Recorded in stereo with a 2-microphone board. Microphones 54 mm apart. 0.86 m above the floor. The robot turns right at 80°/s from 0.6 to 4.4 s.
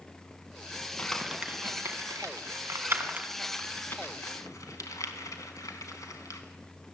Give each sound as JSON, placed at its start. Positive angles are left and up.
{"t": 1.0, "sound": "crumpling", "side_deg": 20, "distance_m": 4.0}